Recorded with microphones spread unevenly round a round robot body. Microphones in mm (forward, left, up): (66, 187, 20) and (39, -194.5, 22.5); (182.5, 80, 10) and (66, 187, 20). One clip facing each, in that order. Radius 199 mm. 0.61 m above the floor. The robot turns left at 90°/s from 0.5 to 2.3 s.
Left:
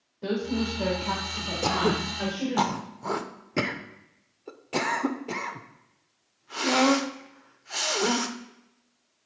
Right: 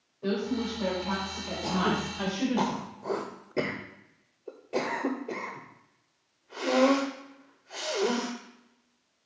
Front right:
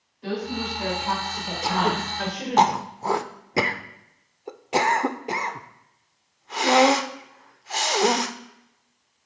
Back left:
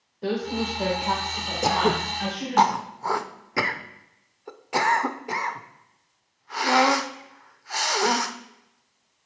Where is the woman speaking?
125° left, 2 m; by 2.6 s 35° right, 2 m.